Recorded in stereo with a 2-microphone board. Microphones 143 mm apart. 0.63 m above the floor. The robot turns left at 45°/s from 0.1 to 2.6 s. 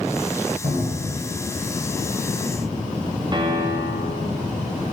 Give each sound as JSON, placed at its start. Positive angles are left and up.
{"t": 0.6, "sound": "a cupboard door", "side_deg": -70, "distance_m": 2.5}
{"t": 3.3, "sound": "a piano", "side_deg": -30, "distance_m": 0.6}